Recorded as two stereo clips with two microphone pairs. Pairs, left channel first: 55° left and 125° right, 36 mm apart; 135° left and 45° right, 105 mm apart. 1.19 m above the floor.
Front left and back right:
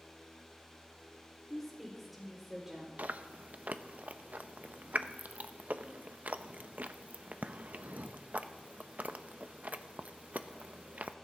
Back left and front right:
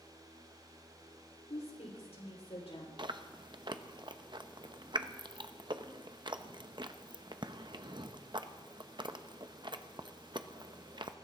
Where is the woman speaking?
135° left, 4 m; by 2.9 s 160° left, 5 m.